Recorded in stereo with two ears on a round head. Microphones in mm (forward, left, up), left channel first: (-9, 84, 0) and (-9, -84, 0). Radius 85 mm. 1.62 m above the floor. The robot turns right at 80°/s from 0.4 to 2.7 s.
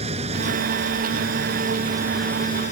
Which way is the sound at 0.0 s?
145° right.